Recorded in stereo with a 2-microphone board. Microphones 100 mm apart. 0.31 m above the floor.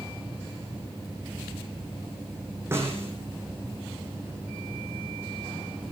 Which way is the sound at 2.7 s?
25° right (ahead or behind).